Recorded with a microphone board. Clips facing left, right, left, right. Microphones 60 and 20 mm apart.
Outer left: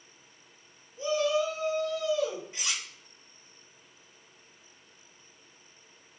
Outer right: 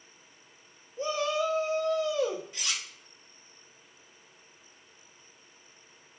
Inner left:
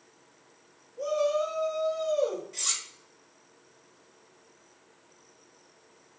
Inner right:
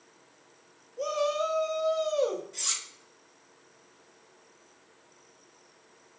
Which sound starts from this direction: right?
A shout, at 1.0 s.